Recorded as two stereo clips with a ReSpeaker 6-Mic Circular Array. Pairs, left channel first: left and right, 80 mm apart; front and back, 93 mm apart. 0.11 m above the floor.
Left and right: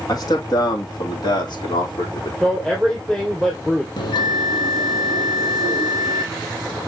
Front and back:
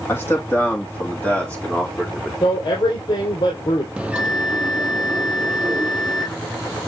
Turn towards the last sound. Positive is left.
turn(degrees=100)